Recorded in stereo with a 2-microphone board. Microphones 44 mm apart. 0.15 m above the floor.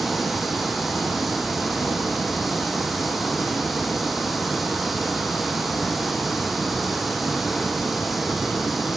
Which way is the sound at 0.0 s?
Centre (ahead or behind).